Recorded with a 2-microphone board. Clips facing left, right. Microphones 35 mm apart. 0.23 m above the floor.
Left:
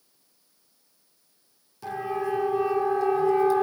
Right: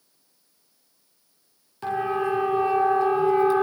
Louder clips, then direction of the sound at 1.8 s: Right 4 dB; 45° right (ahead or behind).